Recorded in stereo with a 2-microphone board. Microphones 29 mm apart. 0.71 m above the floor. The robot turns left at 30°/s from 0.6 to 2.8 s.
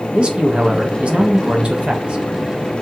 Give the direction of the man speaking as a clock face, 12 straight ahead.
2 o'clock.